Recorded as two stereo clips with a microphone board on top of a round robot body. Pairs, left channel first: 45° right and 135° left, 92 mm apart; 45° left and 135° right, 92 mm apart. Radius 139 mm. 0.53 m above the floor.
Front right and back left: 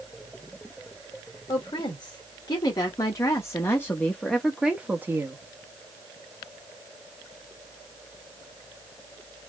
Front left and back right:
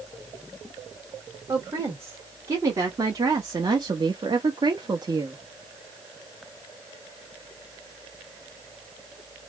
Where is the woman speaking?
75° right, 1.8 m; by 5.4 s 175° right, 0.9 m.